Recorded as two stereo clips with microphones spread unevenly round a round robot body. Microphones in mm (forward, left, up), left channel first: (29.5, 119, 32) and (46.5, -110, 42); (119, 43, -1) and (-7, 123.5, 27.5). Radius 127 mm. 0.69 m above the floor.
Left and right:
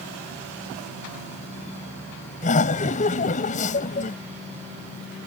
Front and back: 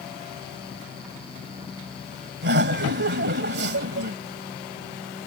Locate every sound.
2.4 s laughter: 155° left